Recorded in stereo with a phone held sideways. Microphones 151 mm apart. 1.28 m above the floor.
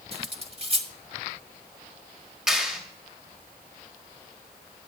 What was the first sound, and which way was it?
Cutlery clinking, 35° right (ahead or behind).